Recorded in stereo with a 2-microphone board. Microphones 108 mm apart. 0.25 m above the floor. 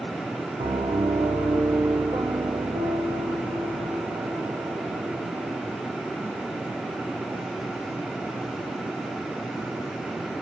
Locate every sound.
0.6 s a piano: 55° right (ahead or behind), 5.5 m